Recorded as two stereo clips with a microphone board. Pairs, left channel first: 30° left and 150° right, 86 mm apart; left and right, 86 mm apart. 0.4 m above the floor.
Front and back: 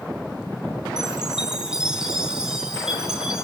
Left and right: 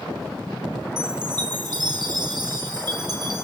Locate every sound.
1.0 s a chime: 70° right, 2.0 m